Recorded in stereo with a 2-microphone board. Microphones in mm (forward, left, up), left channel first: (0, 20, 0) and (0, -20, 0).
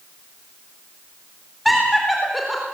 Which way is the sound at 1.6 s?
Centre (ahead or behind).